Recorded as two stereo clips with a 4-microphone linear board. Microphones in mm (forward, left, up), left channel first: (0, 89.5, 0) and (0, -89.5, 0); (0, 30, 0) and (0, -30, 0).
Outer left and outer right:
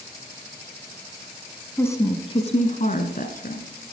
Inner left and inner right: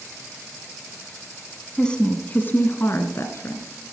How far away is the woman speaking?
About 1.1 m.